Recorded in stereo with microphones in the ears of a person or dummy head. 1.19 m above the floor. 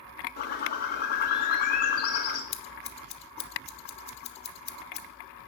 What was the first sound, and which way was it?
A bird, 50° left (ahead or behind).